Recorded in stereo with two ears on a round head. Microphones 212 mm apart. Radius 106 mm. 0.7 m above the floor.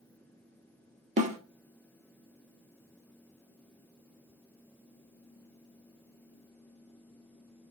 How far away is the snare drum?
About 0.9 m.